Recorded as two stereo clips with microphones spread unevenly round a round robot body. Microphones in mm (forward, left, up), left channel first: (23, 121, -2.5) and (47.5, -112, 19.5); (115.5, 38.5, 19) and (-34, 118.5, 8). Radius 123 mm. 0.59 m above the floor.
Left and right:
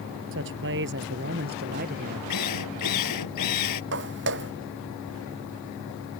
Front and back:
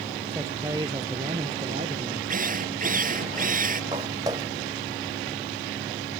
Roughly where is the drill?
Behind left.